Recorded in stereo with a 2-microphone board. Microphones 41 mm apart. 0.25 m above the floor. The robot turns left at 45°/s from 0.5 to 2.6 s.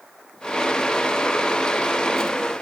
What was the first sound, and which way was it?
Only background noise.